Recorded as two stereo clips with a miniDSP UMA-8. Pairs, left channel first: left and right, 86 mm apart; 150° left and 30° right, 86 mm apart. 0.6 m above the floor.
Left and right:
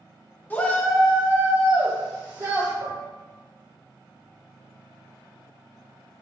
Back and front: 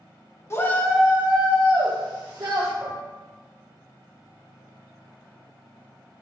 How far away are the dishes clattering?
About 0.8 m.